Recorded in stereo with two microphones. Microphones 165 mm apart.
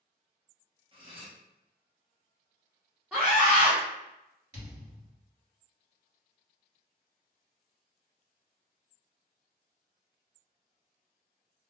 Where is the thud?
25° right (ahead or behind), 1.8 m.